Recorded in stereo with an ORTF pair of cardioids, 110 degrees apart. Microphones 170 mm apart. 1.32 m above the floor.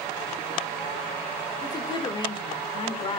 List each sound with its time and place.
1.6 s a woman speaking: 25° left, 3 m; by 3.2 s 35° left, 3.5 m